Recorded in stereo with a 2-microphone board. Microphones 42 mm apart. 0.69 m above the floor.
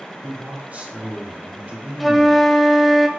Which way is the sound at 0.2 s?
40° right (ahead or behind).